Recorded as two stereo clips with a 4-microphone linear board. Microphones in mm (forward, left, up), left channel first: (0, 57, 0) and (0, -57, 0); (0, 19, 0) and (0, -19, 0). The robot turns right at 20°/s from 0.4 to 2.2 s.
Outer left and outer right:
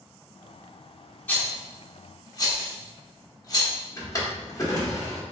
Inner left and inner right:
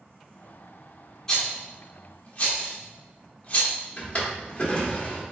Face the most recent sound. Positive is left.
turn(degrees=30)  # may be behind; listen again after turning